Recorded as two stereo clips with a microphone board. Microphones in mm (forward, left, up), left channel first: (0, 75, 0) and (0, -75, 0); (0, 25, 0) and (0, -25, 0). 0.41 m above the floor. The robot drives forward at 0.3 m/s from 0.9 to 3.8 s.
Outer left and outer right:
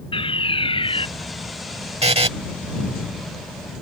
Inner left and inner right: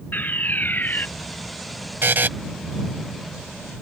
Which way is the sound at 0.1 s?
35° left (ahead or behind).